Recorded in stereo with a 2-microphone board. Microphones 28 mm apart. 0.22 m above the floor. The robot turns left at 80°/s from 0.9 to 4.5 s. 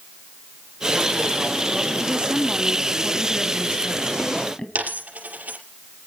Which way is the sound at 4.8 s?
55° right (ahead or behind).